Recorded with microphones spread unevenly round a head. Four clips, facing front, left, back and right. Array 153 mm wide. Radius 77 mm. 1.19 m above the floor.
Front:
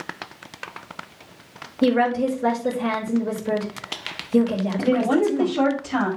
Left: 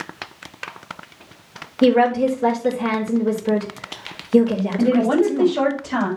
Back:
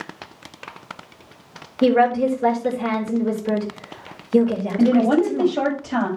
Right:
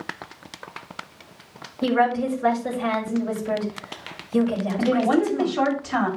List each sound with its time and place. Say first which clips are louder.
1.8 s a woman speaking: left 6 dB, back 3 dB; 125° left, 4 m
4.8 s a woman speaking: left 3 dB, back 4 dB; 140° left, 6.5 m